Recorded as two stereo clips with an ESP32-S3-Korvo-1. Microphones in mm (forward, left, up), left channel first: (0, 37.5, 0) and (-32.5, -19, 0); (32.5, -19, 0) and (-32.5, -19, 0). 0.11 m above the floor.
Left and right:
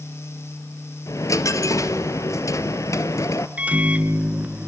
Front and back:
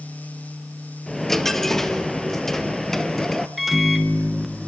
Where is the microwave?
95° right, 0.9 m.